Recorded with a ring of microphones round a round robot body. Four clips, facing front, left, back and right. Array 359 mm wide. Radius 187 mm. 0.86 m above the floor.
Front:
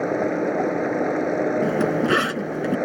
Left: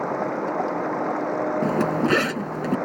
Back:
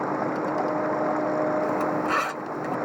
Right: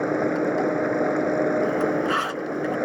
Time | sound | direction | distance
0.0 | running water | 40° right | ?
1.6 | a zipper | 55° left | ?